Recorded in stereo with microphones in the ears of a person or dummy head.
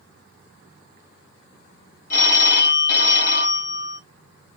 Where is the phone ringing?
45° left (ahead or behind), 1.9 m.